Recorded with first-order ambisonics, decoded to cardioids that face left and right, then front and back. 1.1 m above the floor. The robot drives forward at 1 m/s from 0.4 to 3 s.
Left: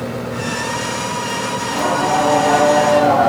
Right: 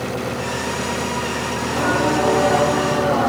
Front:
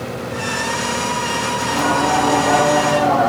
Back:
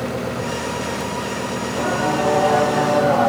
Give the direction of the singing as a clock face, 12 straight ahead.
11 o'clock.